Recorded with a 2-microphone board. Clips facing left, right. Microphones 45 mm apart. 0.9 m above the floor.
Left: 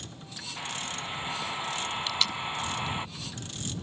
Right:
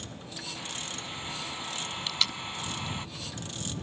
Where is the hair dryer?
20° left (ahead or behind).